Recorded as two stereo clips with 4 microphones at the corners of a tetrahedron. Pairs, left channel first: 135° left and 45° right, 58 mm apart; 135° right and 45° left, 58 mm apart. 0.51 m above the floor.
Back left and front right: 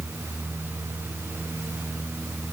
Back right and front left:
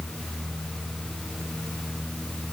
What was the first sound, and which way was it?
Only background noise.